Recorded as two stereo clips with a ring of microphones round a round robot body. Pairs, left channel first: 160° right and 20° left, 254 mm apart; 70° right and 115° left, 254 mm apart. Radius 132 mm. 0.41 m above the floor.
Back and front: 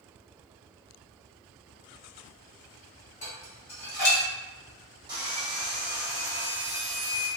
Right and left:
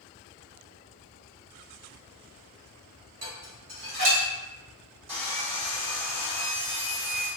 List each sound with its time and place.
3.2 s dishes clattering: 135° left, 1.4 m
5.1 s sawing: 75° left, 1.3 m